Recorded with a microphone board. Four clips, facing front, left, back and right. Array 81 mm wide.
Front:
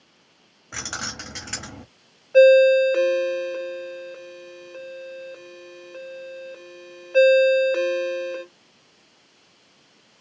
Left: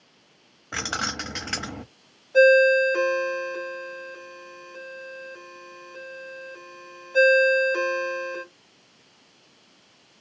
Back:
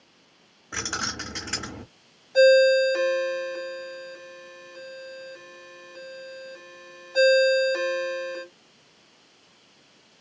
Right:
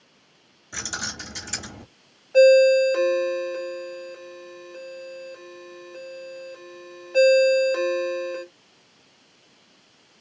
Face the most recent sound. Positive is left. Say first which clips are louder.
# right 2 dB, front 4 dB
turn(degrees=-15)